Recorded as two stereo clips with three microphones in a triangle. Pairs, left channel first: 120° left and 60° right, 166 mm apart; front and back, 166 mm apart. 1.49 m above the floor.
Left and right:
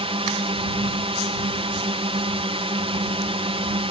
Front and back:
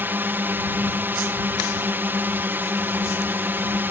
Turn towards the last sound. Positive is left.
turn(degrees=-105)